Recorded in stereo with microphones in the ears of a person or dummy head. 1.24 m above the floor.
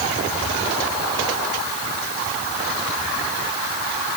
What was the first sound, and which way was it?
Only background noise.